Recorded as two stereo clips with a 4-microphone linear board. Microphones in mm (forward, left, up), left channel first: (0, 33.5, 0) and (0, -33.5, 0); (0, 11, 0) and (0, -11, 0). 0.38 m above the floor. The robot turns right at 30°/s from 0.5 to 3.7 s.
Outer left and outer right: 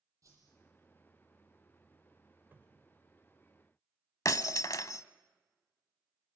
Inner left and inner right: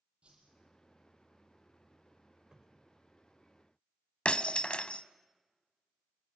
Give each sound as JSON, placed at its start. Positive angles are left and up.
{"t": 0.2, "sound": "a whoosh", "side_deg": -50, "distance_m": 8.5}
{"t": 2.5, "sound": "a cupboard door", "side_deg": -30, "distance_m": 1.6}
{"t": 4.2, "sound": "breaking glass", "side_deg": 60, "distance_m": 0.8}